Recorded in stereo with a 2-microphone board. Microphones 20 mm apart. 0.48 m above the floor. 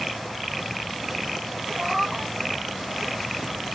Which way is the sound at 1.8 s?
20° right (ahead or behind).